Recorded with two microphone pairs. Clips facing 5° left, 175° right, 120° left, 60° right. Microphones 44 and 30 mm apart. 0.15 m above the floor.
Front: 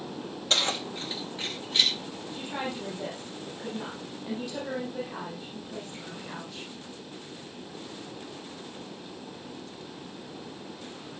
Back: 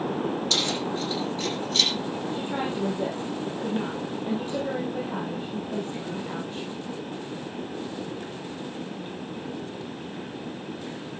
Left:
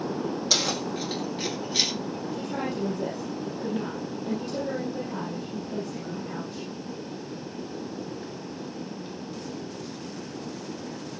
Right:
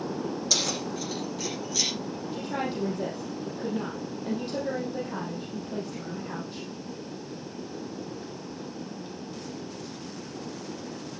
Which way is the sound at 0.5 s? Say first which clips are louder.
Back 2 dB, left 3 dB; 60° left.